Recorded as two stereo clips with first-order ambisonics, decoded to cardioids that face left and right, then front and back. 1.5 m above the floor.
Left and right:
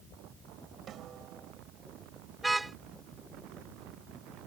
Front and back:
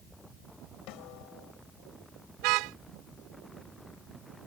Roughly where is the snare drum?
Ahead right.